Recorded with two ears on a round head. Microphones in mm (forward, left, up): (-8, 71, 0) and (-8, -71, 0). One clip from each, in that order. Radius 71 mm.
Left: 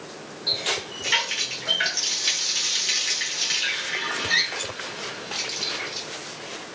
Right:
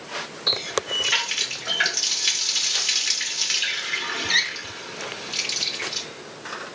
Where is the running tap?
25° right (ahead or behind), 0.9 m.